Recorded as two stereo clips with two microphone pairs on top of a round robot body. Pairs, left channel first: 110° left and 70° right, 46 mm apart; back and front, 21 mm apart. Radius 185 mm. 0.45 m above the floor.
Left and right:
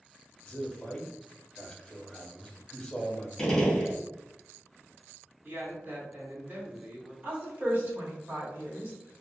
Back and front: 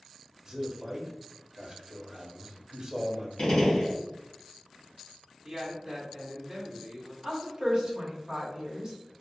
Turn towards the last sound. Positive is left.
turn(degrees=-45)